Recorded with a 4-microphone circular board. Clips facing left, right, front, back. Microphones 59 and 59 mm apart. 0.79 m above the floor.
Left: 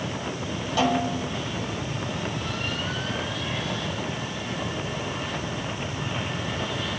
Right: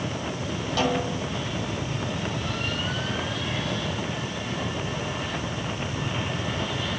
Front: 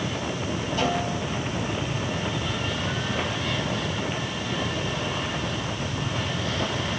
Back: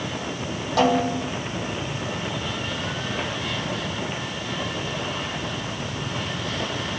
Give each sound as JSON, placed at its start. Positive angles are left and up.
{"t": 0.8, "sound": "a snare drum", "azimuth_deg": 170, "distance_m": 5.5}